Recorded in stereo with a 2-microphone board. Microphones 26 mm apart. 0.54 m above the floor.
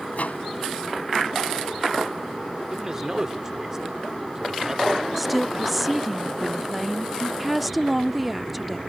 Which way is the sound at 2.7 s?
20° right (ahead or behind).